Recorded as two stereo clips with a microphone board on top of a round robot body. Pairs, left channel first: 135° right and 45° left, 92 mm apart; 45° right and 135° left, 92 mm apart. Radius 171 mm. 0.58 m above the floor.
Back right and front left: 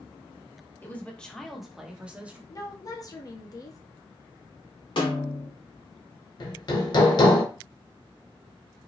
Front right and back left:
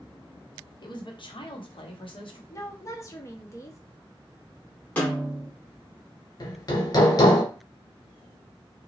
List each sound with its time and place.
0.8 s a woman speaking: 70° right, 1.0 m; by 2.4 s 30° right, 1.3 m
2.5 s a woman speaking: 95° right, 1.1 m
5.0 s a snare drum: 120° right, 2.0 m
6.4 s hammering: 95° right, 0.9 m